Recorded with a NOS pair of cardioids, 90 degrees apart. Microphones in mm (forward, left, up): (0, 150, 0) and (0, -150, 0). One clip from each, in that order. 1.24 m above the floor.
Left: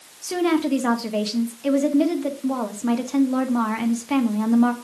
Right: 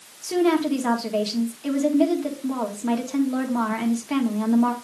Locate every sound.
0.2 s a woman speaking: 15° left, 1.8 m